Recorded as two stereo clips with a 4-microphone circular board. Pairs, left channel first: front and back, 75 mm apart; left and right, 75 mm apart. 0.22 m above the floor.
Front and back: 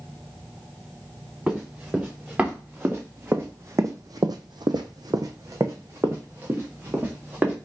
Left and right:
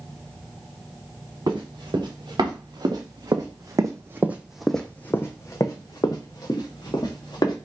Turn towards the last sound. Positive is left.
turn(degrees=110)